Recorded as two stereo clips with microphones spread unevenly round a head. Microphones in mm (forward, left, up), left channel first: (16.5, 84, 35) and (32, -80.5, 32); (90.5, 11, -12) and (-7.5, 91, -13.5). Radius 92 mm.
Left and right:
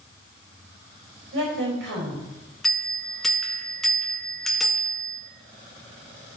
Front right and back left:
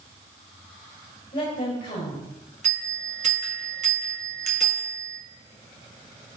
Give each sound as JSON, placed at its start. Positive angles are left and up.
{"t": 1.3, "sound": "a woman speaking", "azimuth_deg": -90, "distance_m": 5.0}
{"t": 2.6, "sound": "a bell", "azimuth_deg": -175, "distance_m": 1.6}